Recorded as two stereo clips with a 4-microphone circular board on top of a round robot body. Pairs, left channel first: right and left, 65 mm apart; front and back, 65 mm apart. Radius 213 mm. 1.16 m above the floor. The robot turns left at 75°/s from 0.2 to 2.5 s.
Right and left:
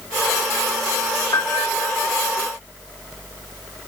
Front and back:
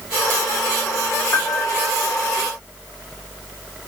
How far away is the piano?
About 3.5 m.